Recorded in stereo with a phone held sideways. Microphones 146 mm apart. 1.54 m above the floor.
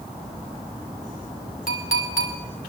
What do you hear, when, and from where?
1.7 s a clink: 70° left (ahead or behind), 3 m